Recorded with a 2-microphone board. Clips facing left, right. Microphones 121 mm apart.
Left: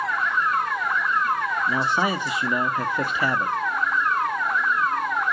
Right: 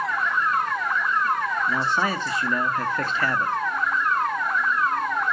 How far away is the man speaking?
About 0.9 m.